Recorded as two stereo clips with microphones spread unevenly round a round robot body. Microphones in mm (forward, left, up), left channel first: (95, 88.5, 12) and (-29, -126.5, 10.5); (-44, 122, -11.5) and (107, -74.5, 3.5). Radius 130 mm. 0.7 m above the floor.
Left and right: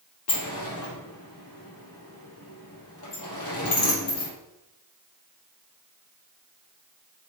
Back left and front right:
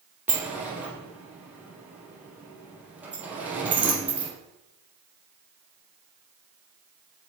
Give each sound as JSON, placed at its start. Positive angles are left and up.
{"t": 0.3, "sound": "a sliding door", "azimuth_deg": 30, "distance_m": 3.0}